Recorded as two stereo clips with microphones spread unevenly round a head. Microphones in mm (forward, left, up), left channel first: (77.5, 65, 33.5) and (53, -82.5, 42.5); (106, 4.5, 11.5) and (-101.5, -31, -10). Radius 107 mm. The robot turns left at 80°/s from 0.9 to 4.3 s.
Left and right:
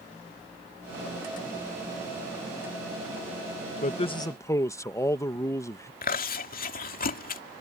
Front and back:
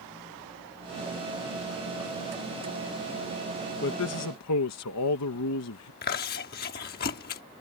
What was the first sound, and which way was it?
A man speaking, 50° left.